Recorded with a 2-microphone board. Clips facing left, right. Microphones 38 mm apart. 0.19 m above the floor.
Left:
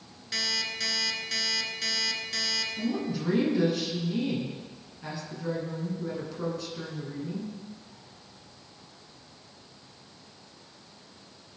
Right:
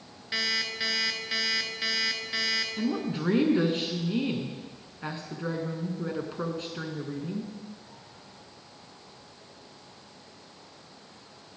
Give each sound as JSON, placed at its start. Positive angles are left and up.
{"t": 0.3, "sound": "an alarm clock", "side_deg": -25, "distance_m": 1.2}
{"t": 2.8, "sound": "a woman speaking", "side_deg": -40, "distance_m": 2.5}